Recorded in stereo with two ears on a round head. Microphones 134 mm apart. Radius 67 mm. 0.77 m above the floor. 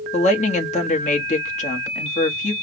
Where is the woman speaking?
50° left (ahead or behind), 1.3 m.